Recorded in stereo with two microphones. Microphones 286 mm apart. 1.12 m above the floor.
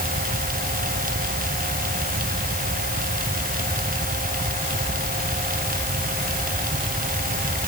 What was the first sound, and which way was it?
Only background noise.